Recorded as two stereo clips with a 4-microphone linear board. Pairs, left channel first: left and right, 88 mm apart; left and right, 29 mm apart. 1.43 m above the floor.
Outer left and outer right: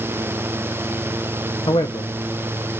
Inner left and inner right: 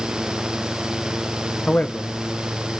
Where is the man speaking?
80° left, 0.8 m.